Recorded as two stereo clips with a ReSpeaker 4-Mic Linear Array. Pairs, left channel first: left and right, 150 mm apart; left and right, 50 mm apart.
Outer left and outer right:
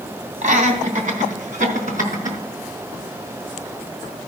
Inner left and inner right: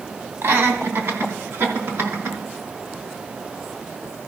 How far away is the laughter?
About 3 m.